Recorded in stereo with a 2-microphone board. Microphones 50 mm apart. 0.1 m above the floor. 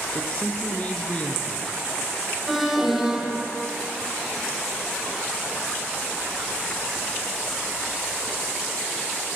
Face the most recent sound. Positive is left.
turn(degrees=-5)  # may be behind; listen again after turning